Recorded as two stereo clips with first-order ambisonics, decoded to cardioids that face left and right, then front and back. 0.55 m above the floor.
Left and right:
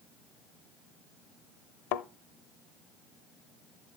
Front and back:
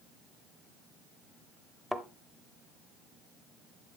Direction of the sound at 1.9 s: 85° left.